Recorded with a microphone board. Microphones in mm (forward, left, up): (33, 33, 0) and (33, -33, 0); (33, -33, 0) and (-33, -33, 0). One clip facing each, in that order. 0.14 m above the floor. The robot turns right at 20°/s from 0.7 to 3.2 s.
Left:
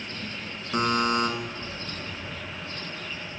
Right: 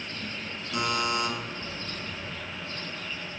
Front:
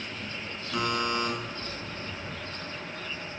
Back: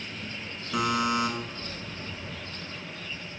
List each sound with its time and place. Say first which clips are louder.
0.7 s a buzzer: left 4 dB, back 3 dB; 95° left, 1.0 m; by 1.3 s 110° left, 1.0 m